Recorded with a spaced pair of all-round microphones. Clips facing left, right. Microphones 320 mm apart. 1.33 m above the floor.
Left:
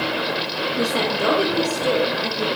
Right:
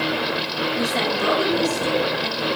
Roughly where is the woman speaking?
Left.